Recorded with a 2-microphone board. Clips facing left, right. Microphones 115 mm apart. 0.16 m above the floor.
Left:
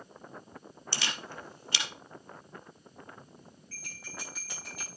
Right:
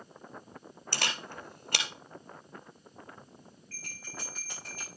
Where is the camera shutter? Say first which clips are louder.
Right 2 dB; 50° right (ahead or behind), 2 m.